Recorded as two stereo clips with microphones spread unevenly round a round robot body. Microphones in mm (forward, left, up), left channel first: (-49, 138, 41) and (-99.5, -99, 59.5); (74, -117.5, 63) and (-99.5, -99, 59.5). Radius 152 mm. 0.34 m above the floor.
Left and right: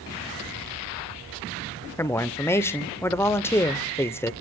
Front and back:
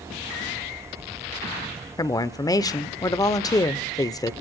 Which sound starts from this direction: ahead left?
A woman speaking, at 2.0 s.